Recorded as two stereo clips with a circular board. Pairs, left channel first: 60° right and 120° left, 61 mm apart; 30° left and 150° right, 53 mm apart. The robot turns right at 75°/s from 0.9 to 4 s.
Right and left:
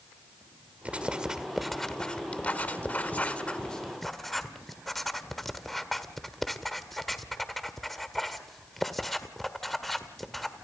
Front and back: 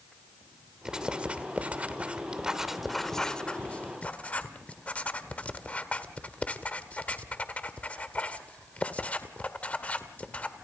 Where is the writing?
155° left, 1.5 m; by 10.5 s 25° left, 1.5 m.